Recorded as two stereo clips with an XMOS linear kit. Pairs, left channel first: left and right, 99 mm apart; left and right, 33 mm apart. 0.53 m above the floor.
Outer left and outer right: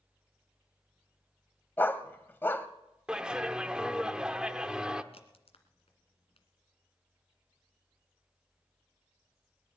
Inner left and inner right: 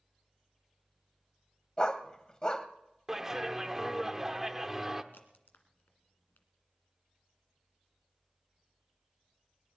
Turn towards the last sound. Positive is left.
turn(degrees=85)